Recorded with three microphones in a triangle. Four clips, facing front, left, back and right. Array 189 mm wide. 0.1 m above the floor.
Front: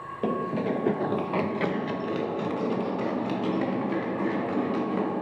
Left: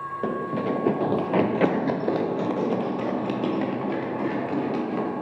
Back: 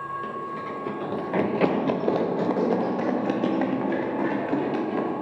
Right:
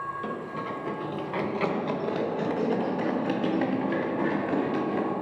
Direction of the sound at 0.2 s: 40° left.